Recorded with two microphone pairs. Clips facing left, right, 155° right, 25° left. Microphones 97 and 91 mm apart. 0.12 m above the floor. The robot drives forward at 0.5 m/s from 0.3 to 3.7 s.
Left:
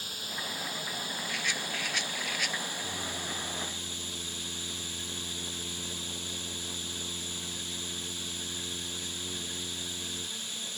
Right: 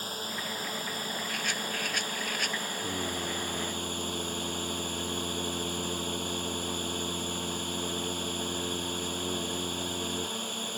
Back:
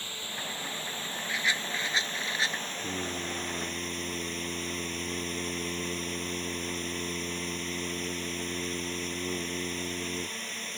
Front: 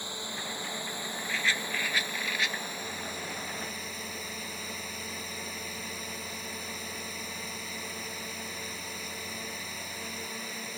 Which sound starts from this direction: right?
A rattle, at 1.3 s.